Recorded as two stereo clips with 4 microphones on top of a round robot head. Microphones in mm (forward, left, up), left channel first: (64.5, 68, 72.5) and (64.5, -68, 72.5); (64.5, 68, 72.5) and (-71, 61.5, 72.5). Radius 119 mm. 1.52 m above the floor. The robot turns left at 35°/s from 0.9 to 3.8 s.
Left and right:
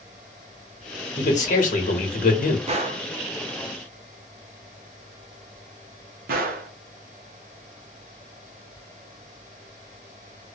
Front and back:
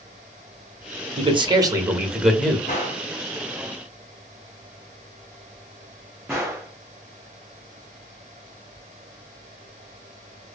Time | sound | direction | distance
1.2 | a man speaking | 135° left | 1.0 m
2.7 | a gunshot | 50° right | 0.6 m